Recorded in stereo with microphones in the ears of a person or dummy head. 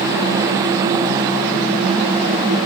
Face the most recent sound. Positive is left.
No sound to turn to.